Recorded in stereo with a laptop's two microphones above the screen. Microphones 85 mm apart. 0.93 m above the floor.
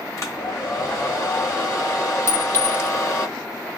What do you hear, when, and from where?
0.2 s a hair dryer: 40° left (ahead or behind), 1.9 m
2.3 s a clink: 35° left (ahead or behind), 2 m